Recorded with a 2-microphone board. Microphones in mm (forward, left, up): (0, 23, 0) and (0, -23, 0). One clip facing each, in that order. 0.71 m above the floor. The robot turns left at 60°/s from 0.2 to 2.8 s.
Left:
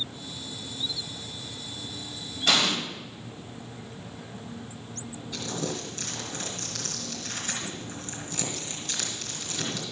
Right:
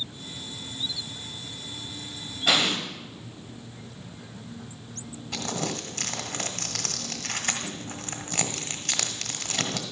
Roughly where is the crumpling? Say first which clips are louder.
Right 2 dB; right.